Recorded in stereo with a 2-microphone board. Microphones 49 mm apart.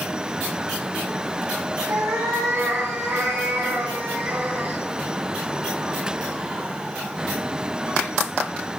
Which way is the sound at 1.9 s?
65° right (ahead or behind).